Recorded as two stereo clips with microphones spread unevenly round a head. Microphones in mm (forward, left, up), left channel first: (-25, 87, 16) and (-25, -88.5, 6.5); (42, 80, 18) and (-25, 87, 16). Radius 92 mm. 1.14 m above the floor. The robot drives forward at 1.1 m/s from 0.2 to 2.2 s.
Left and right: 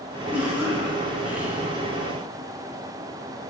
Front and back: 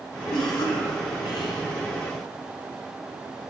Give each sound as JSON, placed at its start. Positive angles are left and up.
{"t": 0.3, "sound": "a cough", "azimuth_deg": -5, "distance_m": 3.5}